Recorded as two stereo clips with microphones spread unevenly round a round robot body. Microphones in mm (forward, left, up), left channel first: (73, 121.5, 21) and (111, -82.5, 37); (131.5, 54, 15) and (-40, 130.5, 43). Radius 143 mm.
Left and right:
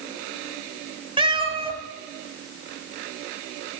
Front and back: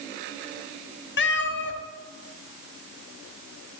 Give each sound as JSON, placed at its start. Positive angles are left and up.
{"t": 1.2, "sound": "a cat meowing", "azimuth_deg": -15, "distance_m": 1.5}